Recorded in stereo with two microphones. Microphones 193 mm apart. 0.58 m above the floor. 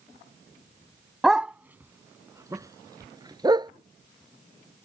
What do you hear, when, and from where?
1.2 s a dog barking: centre (ahead or behind); by 3.7 s 20° right (ahead or behind)